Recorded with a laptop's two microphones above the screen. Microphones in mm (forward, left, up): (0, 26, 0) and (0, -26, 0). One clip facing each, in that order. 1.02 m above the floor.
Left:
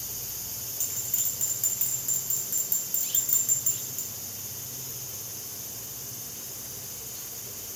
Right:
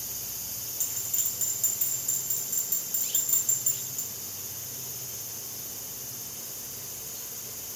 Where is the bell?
35° left (ahead or behind), 0.8 m.